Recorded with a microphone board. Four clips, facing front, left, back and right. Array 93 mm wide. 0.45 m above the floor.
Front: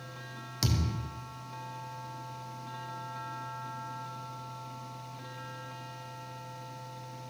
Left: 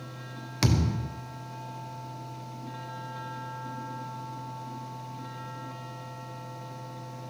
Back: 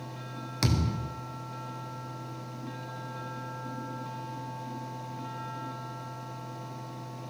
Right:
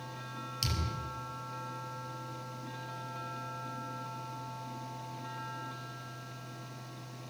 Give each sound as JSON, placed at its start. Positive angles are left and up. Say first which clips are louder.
{"t": 0.6, "sound": "a thud", "louder": "left 12 dB, back 4 dB", "azimuth_deg": 115, "distance_m": 2.0}